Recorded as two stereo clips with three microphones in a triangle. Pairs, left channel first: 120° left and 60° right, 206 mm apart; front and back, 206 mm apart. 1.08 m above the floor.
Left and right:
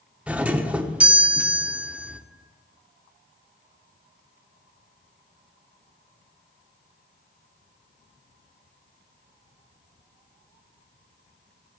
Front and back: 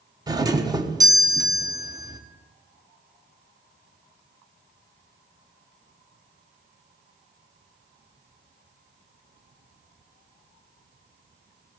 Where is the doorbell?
135° right, 1.1 m.